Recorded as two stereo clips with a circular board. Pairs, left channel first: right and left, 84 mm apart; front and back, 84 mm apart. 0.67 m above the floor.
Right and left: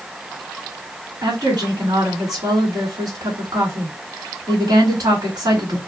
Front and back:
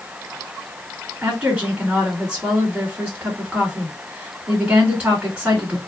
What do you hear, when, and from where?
1.2 s a woman speaking: 115° left, 1.5 m